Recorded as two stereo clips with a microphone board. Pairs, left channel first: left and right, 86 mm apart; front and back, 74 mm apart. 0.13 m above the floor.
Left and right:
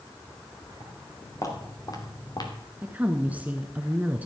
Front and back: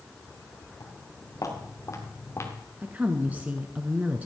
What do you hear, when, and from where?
0.8 s footsteps: 40° left, 5 m; by 2.5 s 55° left, 3 m
2.8 s a woman speaking: 140° right, 1.1 m